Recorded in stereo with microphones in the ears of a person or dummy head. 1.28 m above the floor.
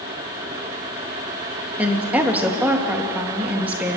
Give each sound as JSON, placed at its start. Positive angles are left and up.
{"t": 1.8, "sound": "a woman speaking", "side_deg": -10, "distance_m": 1.8}